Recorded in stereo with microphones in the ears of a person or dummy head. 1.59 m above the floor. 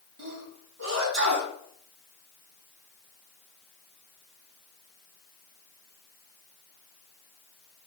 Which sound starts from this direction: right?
A sneeze, at 0.2 s.